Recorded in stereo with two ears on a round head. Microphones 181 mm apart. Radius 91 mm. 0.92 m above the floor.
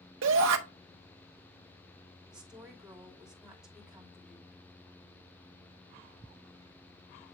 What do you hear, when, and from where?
0.2 s a shout: 65° right (ahead or behind), 0.6 m
2.3 s a woman speaking: 5° right (ahead or behind), 2.5 m